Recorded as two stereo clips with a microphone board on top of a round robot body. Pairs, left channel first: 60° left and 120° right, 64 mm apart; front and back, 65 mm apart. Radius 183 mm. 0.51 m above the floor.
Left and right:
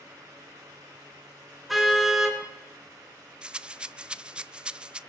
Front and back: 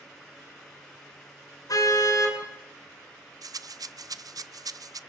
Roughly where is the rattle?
Behind.